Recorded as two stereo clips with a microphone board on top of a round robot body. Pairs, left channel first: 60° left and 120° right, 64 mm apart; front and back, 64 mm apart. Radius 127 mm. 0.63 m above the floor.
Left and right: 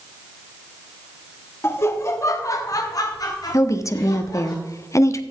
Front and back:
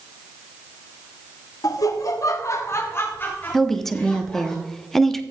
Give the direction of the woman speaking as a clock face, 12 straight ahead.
9 o'clock.